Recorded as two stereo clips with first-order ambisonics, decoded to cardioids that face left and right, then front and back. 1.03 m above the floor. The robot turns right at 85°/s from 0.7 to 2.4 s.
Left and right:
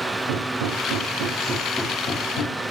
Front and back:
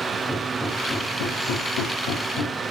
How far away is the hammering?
About 2 m.